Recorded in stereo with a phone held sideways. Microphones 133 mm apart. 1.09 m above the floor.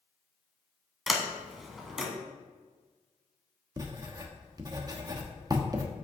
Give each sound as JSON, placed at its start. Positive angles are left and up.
{"t": 1.1, "sound": "a sliding door", "side_deg": 0, "distance_m": 1.5}
{"t": 3.8, "sound": "writing", "side_deg": -30, "distance_m": 1.1}